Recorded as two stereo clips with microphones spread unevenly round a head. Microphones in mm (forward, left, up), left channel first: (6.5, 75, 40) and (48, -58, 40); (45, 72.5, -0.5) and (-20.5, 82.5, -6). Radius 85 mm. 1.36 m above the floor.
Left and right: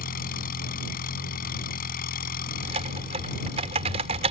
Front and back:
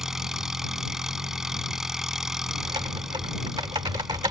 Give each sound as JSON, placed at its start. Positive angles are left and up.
{"t": 0.0, "sound": "an engine running", "azimuth_deg": 85}
{"t": 2.6, "sound": "typing on a keyboard", "azimuth_deg": -125}